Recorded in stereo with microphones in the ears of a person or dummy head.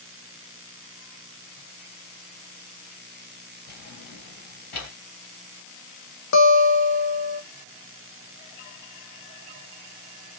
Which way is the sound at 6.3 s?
80° left.